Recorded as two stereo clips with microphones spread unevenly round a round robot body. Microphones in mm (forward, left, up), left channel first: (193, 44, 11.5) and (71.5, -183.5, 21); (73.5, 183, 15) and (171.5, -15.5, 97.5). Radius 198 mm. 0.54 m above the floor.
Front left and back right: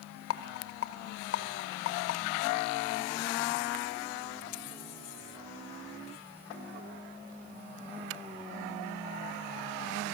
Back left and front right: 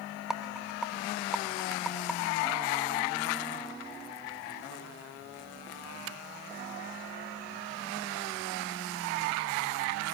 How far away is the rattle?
About 0.6 m.